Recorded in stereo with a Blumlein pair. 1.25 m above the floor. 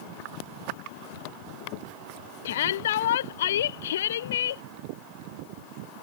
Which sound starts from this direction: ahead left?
A shout, at 2.5 s.